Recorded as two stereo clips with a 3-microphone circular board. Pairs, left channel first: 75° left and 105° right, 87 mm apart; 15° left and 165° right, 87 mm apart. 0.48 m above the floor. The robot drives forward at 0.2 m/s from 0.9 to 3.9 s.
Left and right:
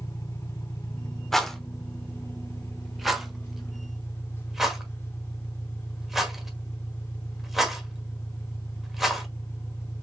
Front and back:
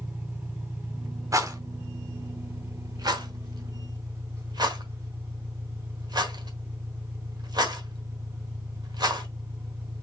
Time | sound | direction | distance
0.0 | an engine running | 130° left | 2.5 m
1.3 | a rattle | 160° left | 0.9 m